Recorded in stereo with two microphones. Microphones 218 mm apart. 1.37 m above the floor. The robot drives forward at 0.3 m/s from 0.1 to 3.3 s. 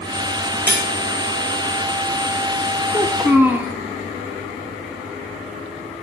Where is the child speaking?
5° right (ahead or behind), 0.9 m; by 3.8 s 10° right (ahead or behind), 0.8 m.